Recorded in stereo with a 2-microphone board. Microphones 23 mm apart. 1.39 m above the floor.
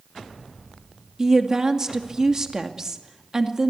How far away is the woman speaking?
About 2.5 m.